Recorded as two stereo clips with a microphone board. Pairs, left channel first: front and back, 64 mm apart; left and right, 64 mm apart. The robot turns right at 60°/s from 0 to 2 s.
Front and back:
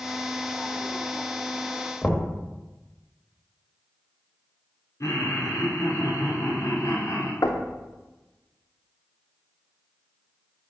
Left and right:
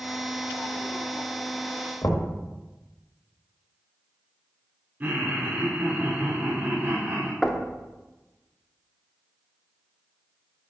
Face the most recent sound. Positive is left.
turn(degrees=0)